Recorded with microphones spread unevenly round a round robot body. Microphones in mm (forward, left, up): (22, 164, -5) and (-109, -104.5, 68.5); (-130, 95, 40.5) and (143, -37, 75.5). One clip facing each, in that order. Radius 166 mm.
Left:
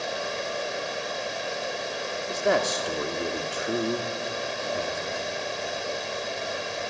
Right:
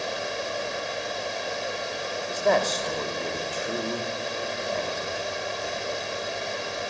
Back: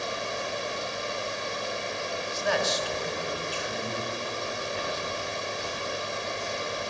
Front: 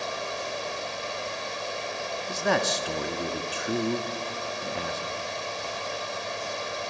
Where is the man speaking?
Straight ahead, 1.6 m.